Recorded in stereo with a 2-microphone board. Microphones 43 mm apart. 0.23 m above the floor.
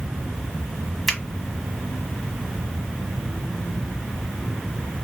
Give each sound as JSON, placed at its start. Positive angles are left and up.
{"t": 1.1, "sound": "a finger snap", "side_deg": 5, "distance_m": 1.3}